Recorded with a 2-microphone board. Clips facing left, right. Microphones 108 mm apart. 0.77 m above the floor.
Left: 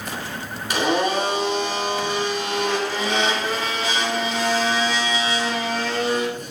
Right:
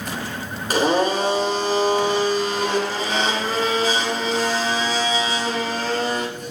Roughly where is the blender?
Right.